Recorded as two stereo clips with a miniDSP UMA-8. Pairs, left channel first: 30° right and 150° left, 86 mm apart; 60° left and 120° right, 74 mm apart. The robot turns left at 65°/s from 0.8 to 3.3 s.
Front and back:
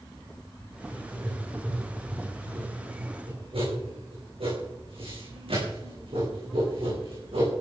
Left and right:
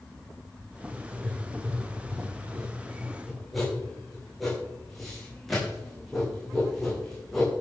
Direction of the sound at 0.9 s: 55° right.